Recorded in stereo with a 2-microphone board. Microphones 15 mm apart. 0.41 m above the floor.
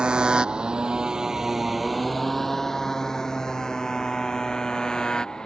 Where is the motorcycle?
80° right; by 5.5 s 50° left (ahead or behind).